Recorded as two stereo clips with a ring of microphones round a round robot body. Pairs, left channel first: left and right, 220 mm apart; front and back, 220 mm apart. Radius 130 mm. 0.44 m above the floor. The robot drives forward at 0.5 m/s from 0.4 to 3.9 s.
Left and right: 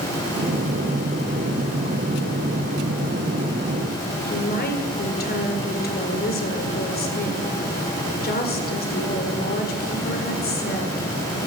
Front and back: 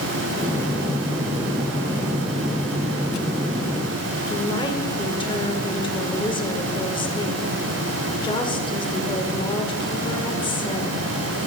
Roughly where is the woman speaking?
Ahead left.